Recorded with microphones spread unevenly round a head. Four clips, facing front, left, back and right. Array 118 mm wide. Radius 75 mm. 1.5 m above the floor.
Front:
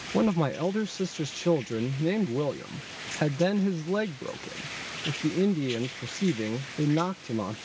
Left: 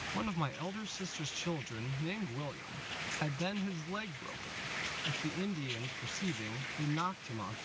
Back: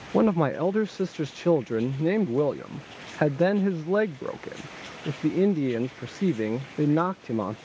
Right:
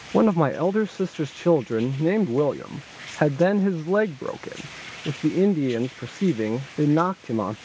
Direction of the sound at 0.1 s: 125° right.